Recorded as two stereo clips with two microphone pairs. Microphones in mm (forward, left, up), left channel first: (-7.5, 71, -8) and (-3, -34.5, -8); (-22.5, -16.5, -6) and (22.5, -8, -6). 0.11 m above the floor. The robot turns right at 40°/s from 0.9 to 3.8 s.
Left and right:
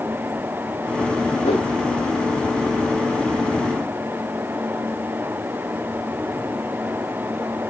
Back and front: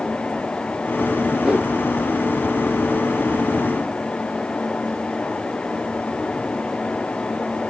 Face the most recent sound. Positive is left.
turn(degrees=180)